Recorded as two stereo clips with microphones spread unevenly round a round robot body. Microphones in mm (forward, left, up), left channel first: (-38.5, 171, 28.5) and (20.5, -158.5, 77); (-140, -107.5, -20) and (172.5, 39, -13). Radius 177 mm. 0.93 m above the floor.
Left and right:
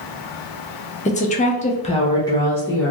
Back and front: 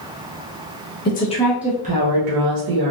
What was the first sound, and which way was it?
A woman speaking, 155° left.